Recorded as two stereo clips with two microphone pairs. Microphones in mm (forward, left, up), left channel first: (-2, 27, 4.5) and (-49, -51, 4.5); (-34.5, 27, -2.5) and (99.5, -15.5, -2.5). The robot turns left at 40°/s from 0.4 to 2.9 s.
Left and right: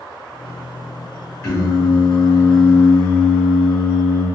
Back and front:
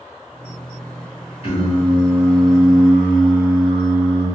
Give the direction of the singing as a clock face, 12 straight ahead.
8 o'clock.